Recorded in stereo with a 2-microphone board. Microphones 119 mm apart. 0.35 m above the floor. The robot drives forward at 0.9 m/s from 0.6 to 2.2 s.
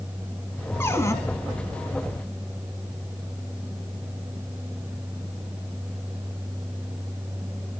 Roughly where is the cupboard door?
Left.